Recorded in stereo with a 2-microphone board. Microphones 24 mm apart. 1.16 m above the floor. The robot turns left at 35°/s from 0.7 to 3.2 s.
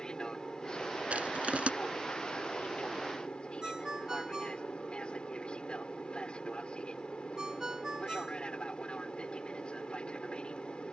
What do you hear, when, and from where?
0.0 s an aircraft: 140° left; by 10.9 s 55° left
1.1 s crushing: 80° right
3.6 s a ringtone: 30° right (ahead or behind)